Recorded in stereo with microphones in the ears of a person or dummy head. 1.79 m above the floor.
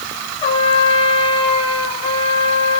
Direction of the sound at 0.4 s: 30° left (ahead or behind).